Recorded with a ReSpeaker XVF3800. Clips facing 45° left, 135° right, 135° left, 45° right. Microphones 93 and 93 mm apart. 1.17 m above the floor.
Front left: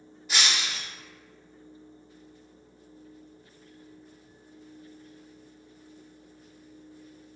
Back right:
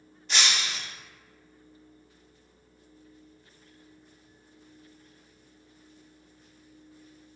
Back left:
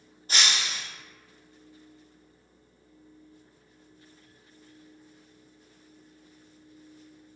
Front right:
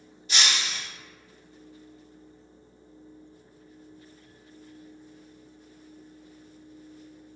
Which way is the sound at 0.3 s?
125° left.